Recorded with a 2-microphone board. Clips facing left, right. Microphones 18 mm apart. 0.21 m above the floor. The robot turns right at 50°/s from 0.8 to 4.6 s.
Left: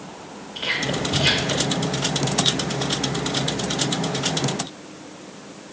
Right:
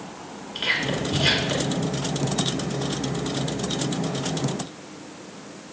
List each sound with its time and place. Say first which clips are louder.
0.6 s whispering: even; 30° right (ahead or behind), 3 m; by 1.8 s 10° left (ahead or behind), 3 m